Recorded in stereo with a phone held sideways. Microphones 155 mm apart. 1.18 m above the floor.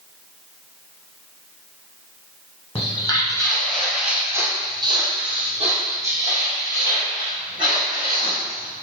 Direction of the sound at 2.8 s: 35° left (ahead or behind).